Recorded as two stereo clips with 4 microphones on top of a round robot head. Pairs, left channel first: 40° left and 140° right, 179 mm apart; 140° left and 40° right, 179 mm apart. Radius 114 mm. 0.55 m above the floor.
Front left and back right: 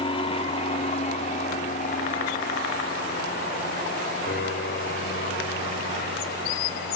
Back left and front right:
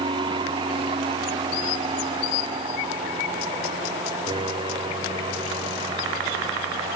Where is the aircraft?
5° left; by 7.0 s 25° left.